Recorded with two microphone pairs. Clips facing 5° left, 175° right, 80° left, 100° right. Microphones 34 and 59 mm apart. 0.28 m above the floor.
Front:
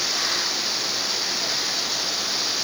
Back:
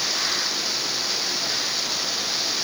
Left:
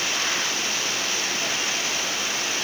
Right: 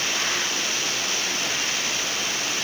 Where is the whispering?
No whispering in this recording.